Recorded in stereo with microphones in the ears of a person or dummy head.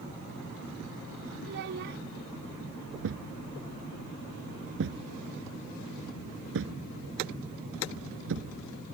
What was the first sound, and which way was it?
A child speaking, 55° right (ahead or behind).